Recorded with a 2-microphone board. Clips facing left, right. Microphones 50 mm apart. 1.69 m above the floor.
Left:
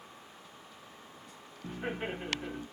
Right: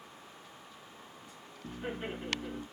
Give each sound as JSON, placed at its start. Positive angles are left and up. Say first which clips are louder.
{"t": 1.6, "sound": "laughter", "louder": "left 2 dB", "side_deg": 60, "distance_m": 1.2}